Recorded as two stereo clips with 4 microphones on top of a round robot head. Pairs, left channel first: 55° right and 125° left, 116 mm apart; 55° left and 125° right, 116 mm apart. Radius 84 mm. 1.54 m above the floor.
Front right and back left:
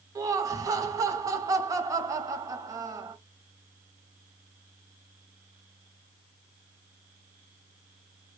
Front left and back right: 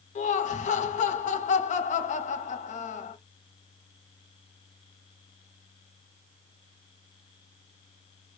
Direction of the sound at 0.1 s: 60° left.